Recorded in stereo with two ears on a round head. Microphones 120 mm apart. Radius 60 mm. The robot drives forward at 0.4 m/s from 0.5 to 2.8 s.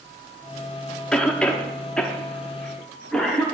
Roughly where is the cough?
Centre.